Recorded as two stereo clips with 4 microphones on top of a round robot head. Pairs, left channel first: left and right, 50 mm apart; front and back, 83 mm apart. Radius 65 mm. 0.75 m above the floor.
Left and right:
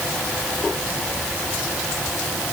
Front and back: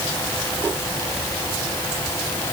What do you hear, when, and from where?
Only background noise.